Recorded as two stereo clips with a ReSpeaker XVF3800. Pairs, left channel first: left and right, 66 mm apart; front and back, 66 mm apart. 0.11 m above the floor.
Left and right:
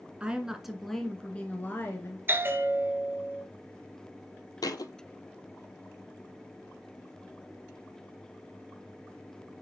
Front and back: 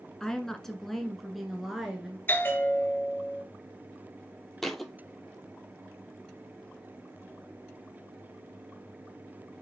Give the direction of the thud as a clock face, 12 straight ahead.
9 o'clock.